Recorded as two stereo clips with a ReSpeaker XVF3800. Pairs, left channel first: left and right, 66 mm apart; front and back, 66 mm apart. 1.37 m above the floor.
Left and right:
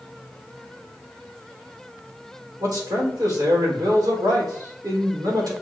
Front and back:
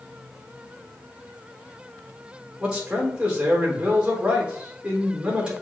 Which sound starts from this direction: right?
A man speaking, at 2.6 s.